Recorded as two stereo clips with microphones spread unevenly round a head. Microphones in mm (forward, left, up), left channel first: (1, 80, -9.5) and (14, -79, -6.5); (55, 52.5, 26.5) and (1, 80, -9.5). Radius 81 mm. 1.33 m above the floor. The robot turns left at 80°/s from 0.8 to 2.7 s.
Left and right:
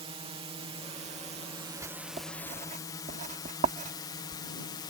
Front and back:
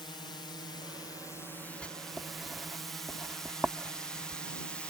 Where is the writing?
20° right; by 4.4 s 90° right.